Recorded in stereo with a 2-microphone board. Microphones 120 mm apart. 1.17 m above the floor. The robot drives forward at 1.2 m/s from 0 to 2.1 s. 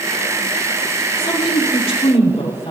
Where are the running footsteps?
No running footsteps in this recording.